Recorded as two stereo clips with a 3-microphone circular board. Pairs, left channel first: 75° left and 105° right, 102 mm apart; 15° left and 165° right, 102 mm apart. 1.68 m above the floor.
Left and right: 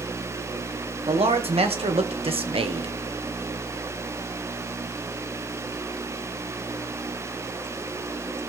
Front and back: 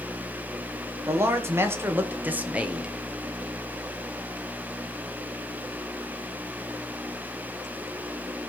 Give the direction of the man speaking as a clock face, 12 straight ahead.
3 o'clock.